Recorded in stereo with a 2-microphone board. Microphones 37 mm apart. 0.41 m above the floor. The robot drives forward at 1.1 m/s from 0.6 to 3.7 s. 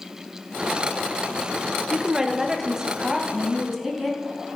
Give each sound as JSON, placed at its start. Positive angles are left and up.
{"t": 1.9, "sound": "a woman speaking", "side_deg": -15, "distance_m": 0.9}